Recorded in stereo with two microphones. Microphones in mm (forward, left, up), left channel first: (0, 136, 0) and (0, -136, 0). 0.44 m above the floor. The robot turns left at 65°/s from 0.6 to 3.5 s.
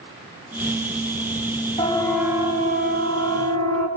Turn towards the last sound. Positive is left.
turn(degrees=-70)  # may be behind; listen again after turning